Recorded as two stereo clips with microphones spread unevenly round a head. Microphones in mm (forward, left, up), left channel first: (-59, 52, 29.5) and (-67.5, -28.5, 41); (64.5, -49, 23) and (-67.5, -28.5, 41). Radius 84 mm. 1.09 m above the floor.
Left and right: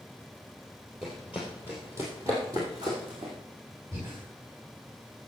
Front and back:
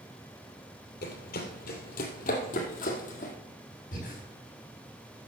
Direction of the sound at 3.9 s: 25° right.